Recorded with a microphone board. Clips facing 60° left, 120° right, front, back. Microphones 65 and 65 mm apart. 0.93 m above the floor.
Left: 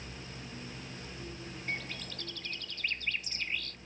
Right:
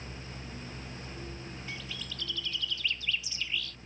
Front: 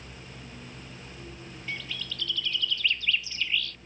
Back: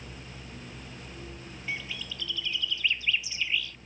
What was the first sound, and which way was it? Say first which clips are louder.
A bird: left 6 dB, back 1 dB; 105° left.